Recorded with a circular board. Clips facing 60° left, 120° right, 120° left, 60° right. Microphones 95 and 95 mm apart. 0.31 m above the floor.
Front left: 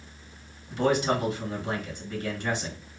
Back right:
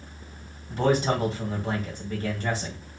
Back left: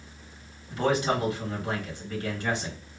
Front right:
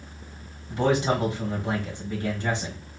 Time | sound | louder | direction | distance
0.7 | a man speaking | back right 1 dB, front right 2 dB | 110° right | 1.8 m